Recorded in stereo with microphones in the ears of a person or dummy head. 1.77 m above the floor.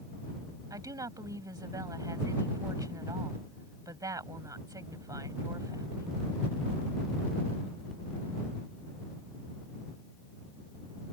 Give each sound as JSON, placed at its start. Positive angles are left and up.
{"t": 0.7, "sound": "a woman speaking", "side_deg": -20}